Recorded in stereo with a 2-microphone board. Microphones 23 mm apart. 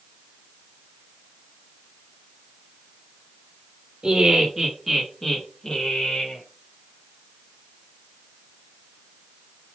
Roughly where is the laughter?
Right.